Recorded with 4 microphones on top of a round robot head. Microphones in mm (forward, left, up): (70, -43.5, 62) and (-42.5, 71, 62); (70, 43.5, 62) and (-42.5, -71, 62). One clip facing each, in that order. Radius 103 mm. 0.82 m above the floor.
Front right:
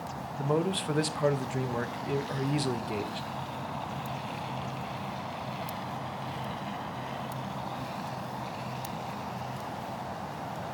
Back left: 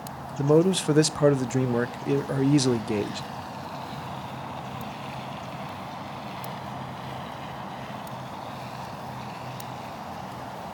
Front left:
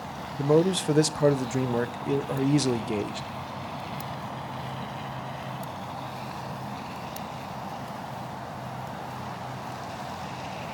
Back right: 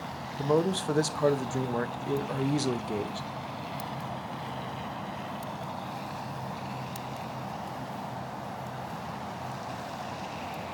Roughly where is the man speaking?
Behind left.